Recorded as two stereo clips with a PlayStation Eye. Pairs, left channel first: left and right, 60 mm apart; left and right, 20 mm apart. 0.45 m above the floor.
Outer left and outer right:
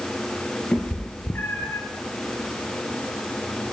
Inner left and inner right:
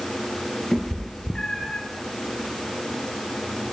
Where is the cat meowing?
20° left (ahead or behind), 1.9 m; by 1.8 s 50° left (ahead or behind), 1.4 m.